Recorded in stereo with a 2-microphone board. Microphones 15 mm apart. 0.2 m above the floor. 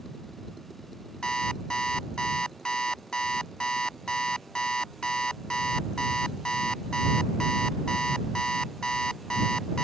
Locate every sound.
1.2 s an alarm clock: 80° left